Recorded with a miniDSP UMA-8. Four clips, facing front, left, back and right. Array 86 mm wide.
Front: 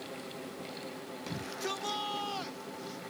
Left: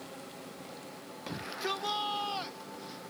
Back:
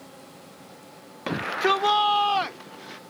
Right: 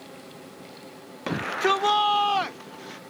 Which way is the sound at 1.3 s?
140° right.